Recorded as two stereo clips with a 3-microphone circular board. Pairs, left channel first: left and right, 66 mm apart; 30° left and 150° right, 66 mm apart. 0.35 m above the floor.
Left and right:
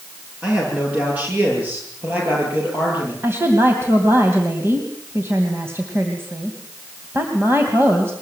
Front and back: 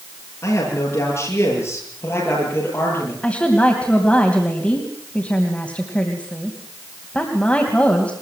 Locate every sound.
0.4 s a man speaking: 15° right, 8 m; by 3.1 s 25° right, 10.5 m
3.2 s a woman speaking: 40° right, 2.5 m